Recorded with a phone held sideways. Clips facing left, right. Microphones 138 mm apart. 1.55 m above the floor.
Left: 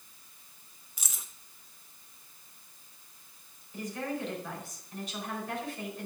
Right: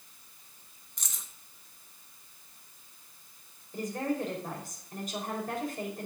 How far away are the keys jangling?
About 1.2 m.